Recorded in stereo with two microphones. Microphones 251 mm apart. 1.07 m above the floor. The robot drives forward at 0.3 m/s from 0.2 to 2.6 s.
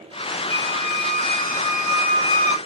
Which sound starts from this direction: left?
A squeak, at 0.5 s.